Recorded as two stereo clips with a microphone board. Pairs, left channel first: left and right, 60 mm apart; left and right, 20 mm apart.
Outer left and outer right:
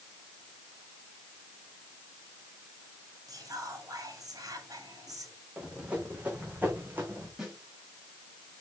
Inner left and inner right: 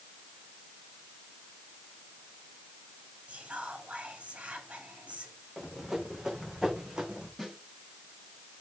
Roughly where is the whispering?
Right.